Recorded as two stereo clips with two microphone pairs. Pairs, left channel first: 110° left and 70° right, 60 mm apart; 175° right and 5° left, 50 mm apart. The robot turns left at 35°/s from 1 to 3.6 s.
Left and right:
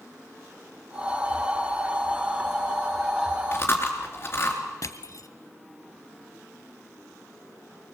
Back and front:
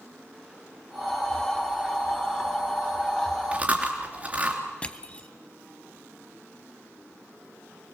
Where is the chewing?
65° left, 3 m; by 4.6 s 60° left, 3 m.